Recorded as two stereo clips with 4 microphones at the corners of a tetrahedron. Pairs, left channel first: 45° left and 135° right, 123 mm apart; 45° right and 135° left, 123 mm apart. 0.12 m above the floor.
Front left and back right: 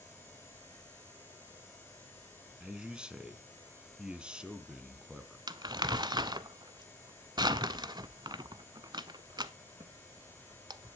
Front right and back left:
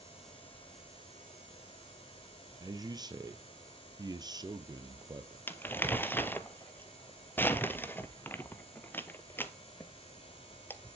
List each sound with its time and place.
2.6 s a man speaking: 145° left, 1.4 m
5.5 s crumpling: 105° right, 0.7 m